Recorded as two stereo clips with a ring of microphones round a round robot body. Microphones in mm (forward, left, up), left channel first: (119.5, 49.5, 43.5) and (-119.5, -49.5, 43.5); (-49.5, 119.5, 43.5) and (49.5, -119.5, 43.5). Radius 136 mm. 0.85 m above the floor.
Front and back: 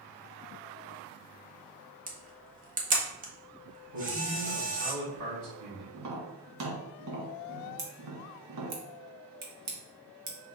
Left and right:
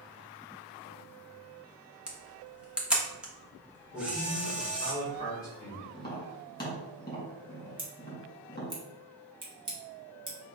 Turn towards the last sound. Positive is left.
turn(degrees=-140)